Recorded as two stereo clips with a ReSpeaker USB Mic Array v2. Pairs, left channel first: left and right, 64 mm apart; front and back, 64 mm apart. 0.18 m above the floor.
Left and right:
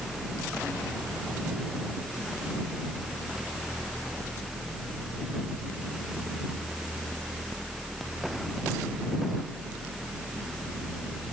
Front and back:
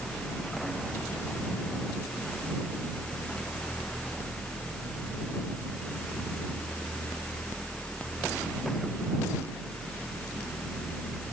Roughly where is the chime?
No chime in this recording.